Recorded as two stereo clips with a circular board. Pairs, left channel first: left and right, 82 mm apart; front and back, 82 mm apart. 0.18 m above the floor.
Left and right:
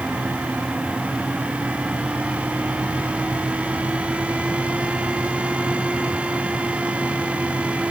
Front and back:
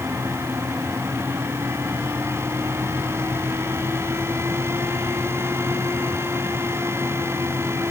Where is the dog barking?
No dog barking in this recording.